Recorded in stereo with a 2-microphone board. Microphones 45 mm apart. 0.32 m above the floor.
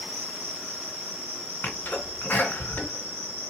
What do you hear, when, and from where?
0.0 s an insect: 5° right (ahead or behind), 2.5 m
1.6 s a sneeze: 50° left (ahead or behind), 2 m